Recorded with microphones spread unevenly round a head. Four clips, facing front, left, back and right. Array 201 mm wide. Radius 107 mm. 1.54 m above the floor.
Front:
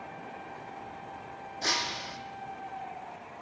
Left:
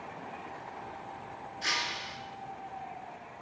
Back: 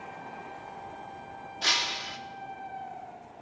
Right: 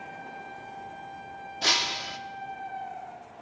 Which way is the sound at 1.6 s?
55° right.